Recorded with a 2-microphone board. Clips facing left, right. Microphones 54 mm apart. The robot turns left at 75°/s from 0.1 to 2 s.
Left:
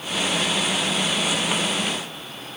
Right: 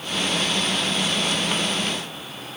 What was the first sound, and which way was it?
Only background noise.